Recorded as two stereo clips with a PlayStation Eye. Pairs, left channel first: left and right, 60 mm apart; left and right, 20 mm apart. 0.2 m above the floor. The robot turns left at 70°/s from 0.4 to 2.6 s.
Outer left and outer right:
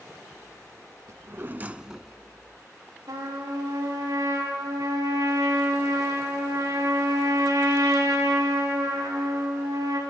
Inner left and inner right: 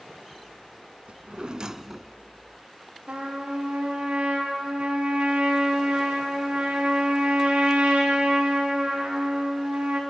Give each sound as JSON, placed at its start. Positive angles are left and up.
{"t": 1.1, "sound": "a drawer", "azimuth_deg": -110, "distance_m": 0.6}
{"t": 3.1, "sound": "a trumpet", "side_deg": -85, "distance_m": 8.5}